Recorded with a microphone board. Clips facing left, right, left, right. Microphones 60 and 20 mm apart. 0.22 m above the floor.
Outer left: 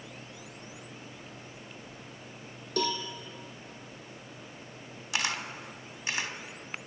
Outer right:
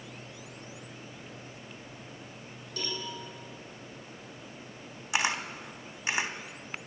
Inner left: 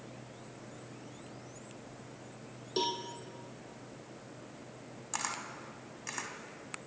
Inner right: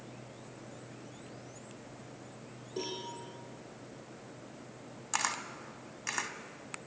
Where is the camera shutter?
25° right (ahead or behind), 0.8 m.